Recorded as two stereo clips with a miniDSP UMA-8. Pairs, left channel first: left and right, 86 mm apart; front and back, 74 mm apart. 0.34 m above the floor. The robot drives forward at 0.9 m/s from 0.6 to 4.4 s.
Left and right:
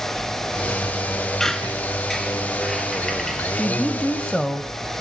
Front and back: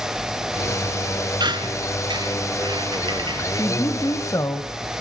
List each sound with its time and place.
1.4 s a squeak: 175° left, 2 m
3.6 s a woman speaking: 5° left, 1.9 m; by 5.0 s 10° left, 1.2 m